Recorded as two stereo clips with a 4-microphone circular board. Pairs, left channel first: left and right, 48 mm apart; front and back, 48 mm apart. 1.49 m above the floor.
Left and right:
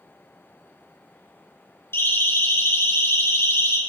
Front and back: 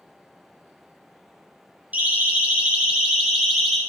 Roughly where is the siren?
Behind left.